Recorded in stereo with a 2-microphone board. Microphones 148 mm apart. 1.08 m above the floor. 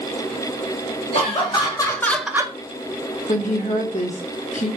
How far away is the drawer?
I don't hear a drawer.